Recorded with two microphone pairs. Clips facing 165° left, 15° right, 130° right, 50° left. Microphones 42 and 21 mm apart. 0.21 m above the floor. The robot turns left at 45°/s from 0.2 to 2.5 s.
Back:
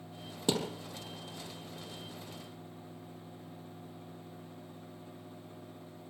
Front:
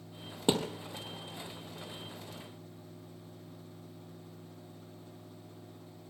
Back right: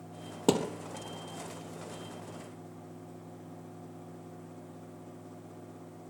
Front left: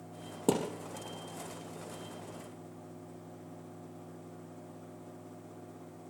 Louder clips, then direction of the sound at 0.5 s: Front 2 dB, back right 3 dB; 85° right.